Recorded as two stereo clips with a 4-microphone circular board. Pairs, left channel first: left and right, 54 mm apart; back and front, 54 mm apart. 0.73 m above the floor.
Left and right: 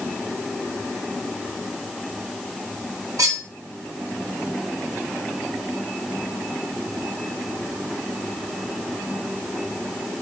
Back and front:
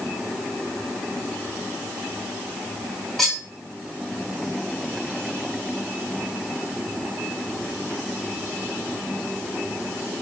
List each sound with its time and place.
3.2 s cutlery clinking: 95° right, 1.4 m